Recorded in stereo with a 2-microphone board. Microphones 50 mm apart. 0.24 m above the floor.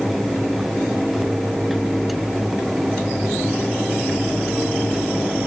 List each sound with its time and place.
Only background noise.